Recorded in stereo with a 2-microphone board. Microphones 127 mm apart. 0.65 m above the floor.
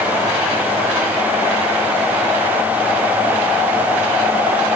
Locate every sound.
Only background noise.